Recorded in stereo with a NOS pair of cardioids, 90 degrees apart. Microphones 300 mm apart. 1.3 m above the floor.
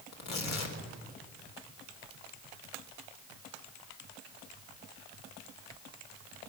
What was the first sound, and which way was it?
Tearing paper, 60° left.